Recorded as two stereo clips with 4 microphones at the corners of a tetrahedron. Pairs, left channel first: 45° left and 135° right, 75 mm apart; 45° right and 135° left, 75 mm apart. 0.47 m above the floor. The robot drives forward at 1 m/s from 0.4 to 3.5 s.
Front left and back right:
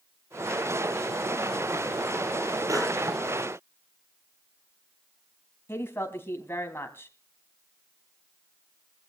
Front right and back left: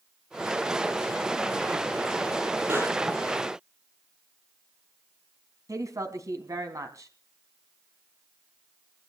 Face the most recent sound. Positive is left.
turn(degrees=100)